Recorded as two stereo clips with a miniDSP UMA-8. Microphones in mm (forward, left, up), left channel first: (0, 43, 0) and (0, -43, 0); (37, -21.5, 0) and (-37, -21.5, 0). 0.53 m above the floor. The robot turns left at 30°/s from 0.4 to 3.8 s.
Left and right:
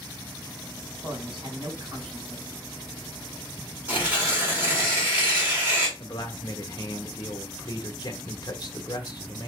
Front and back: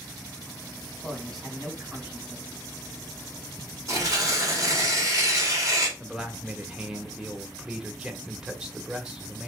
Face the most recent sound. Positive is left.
turn(degrees=105)